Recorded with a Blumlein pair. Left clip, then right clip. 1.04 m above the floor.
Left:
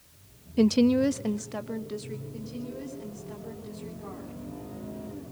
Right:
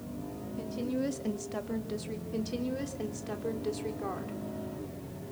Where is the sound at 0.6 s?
55° left, 0.6 m; by 2.2 s straight ahead, 1.8 m.